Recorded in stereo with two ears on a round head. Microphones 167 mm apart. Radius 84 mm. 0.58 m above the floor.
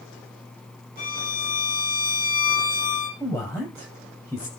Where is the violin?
50° left (ahead or behind), 7 m.